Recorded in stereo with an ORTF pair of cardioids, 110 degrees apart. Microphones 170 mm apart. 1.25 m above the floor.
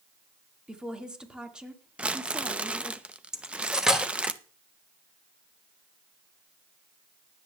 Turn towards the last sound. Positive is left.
turn(degrees=-5)